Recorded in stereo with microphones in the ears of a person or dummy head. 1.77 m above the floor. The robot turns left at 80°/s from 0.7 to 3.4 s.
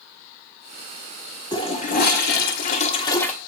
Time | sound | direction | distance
1.5 | a toilet flushing | 150° left | 2.0 m